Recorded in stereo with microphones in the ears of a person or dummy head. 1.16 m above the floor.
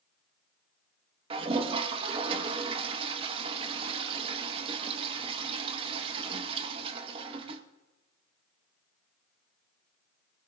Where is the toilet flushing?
35° right (ahead or behind), 1.0 m.